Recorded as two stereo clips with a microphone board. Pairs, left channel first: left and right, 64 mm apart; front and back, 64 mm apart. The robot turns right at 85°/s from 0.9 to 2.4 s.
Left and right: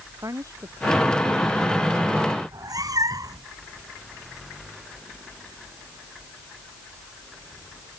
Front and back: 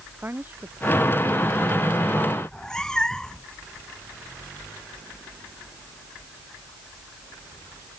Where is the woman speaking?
120° right; by 1.9 s 35° right.